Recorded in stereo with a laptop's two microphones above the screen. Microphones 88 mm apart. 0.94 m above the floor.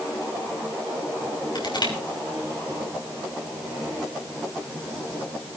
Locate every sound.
1.6 s crushing: 60° left (ahead or behind), 5.5 m